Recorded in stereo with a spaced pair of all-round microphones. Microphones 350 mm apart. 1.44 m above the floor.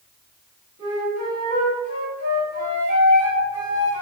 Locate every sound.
0.8 s a flute: 45° left (ahead or behind), 1.2 m